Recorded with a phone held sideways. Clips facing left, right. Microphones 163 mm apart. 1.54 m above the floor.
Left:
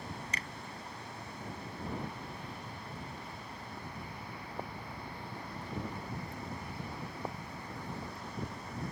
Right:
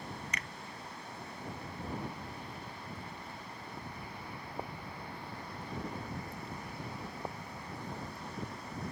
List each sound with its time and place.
0.3 s a finger snap: 30° left (ahead or behind)